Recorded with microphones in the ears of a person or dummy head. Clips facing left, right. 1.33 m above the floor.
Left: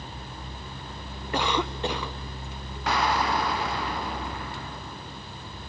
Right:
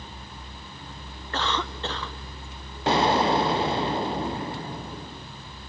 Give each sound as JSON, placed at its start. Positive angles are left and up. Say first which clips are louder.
{"t": 1.3, "sound": "a cough", "louder": "left 3 dB", "side_deg": 10, "distance_m": 0.8}
{"t": 2.9, "sound": "an explosion", "louder": "right 5 dB", "side_deg": -20, "distance_m": 0.6}